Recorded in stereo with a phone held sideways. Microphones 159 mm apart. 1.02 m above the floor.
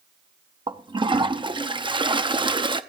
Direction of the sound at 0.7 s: 30° right (ahead or behind).